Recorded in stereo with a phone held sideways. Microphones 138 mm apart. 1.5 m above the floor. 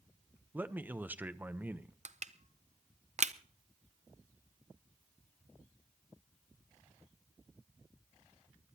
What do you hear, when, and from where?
0.5 s a man speaking: 15° right (ahead or behind), 0.7 m
2.0 s crushing: 55° right (ahead or behind), 0.6 m